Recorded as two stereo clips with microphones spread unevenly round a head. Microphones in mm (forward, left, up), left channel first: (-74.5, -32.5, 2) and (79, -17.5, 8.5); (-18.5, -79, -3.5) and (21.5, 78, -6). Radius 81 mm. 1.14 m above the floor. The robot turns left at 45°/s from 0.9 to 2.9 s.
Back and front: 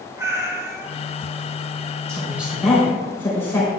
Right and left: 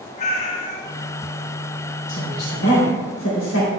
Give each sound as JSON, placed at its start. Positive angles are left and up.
{"t": 0.2, "sound": "a cat meowing", "azimuth_deg": -65, "distance_m": 2.0}
{"t": 2.1, "sound": "a woman speaking", "azimuth_deg": -60, "distance_m": 3.0}